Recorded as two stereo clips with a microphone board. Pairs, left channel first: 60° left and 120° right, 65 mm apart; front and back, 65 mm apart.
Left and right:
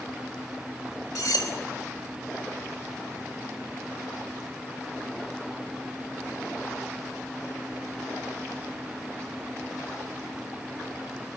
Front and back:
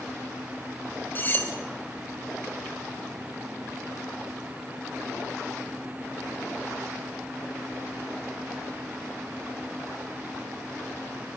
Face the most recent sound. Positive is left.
turn(degrees=55)